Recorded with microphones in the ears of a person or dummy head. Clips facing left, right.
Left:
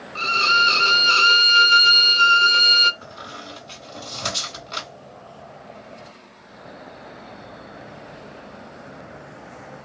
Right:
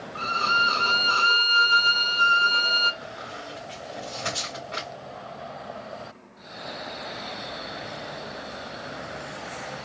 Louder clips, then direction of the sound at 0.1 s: Left 4 dB; 35° left (ahead or behind).